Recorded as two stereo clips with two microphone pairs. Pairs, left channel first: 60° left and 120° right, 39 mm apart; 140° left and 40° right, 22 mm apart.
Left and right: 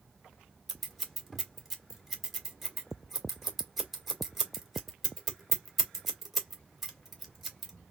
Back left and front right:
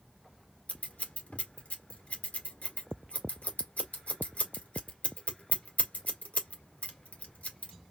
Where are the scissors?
155° left, 1.9 m.